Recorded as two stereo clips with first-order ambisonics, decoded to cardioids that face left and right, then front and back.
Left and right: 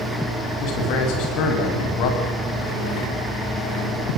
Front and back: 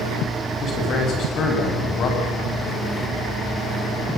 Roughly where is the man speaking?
Ahead left.